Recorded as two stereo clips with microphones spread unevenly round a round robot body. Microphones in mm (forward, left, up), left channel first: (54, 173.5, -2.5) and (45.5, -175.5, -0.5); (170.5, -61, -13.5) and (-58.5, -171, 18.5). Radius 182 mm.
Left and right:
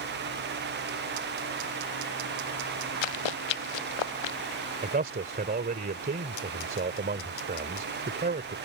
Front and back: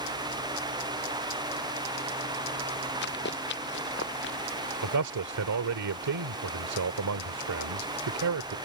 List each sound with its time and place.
3.0 s running footsteps: 90° left; by 4.4 s 85° left
4.8 s a man speaking: 160° right